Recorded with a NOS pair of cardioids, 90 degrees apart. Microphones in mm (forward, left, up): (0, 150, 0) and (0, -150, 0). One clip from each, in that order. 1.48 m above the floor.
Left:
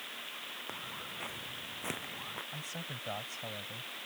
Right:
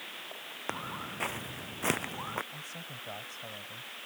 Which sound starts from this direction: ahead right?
Footsteps, at 0.7 s.